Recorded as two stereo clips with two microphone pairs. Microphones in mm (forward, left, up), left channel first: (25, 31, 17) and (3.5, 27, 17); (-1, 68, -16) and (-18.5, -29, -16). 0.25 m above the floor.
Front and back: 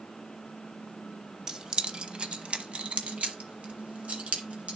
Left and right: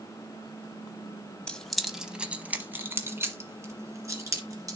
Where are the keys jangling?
155° left, 0.9 m; by 4.8 s 155° right, 2.5 m.